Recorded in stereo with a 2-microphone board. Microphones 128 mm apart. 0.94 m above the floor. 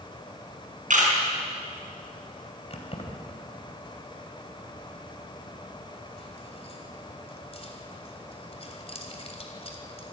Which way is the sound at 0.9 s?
85° right.